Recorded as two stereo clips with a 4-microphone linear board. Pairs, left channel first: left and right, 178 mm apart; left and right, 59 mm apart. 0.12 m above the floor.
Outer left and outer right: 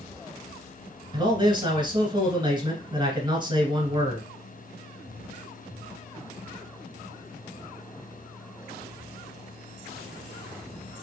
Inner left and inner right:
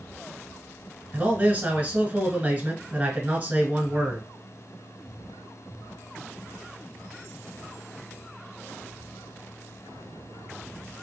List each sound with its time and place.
1.1 s a man speaking: 30° right (ahead or behind), 1.2 m